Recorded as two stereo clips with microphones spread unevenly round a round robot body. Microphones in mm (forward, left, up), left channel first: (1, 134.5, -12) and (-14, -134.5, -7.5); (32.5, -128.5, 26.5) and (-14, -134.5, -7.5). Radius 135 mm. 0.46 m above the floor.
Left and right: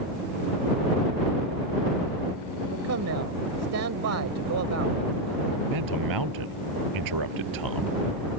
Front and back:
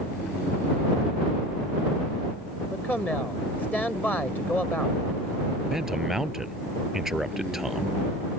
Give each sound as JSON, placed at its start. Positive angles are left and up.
{"t": 2.7, "sound": "a man speaking", "azimuth_deg": -65}
{"t": 5.7, "sound": "a man speaking", "azimuth_deg": -90}